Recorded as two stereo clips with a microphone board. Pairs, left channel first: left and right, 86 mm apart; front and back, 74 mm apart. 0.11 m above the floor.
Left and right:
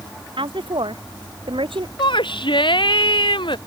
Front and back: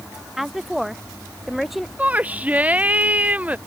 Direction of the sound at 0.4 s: 95° right.